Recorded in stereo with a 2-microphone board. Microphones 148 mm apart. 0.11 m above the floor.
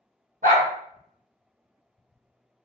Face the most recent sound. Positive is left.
turn(degrees=-70)  # may be behind; listen again after turning